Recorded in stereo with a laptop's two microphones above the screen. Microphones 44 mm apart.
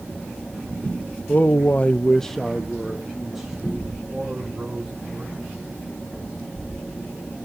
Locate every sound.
1.3 s a man speaking: 35° left (ahead or behind), 1.0 m; by 5.3 s 10° right (ahead or behind), 6 m